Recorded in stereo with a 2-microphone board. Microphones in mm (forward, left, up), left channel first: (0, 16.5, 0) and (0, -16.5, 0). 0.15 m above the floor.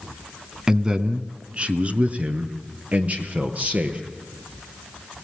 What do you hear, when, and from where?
0.7 s a man speaking: 20° right (ahead or behind), 1.0 m; by 4.0 s 45° right (ahead or behind), 3 m